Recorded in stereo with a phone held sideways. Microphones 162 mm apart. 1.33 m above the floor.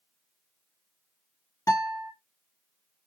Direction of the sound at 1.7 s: 20° left (ahead or behind).